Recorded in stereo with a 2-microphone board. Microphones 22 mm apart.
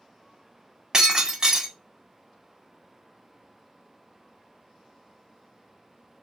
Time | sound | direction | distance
0.9 | breaking glass | 35° right (ahead or behind) | 1.4 m